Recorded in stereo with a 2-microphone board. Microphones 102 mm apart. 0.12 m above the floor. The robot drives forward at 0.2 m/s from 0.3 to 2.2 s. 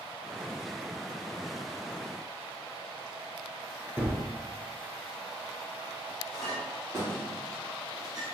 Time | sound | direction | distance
4.0 | a gunshot | 15° right (ahead or behind) | 0.6 m
6.3 | a clink | 5° right (ahead or behind) | 1.8 m